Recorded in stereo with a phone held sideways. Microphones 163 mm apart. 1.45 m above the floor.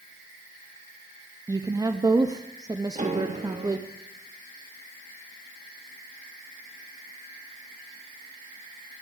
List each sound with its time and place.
1.5 s a woman speaking: 25° right (ahead or behind), 0.5 m
3.0 s a piano: 45° right (ahead or behind), 1.1 m